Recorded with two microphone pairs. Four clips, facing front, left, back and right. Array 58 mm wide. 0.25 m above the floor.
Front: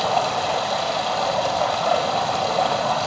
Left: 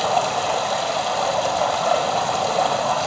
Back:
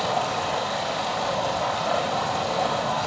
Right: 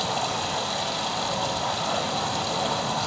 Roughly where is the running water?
Left.